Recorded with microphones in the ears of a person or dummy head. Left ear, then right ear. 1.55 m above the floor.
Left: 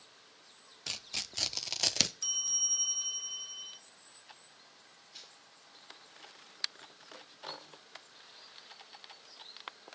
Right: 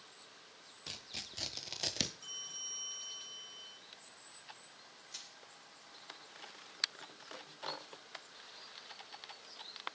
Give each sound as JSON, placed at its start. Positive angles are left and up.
{"t": 0.9, "sound": "tearing paper", "side_deg": 40, "distance_m": 0.5}
{"t": 2.2, "sound": "a bell", "side_deg": 40, "distance_m": 0.9}
{"t": 5.1, "sound": "crushing", "side_deg": -75, "distance_m": 4.5}